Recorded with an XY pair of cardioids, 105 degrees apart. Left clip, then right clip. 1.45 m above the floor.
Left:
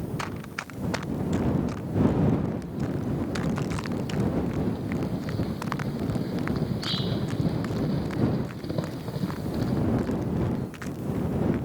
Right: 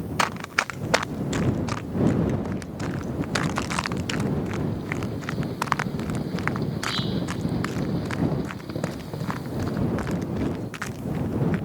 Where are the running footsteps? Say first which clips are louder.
Right 15 dB; 65° right; by 11.6 s 50° right.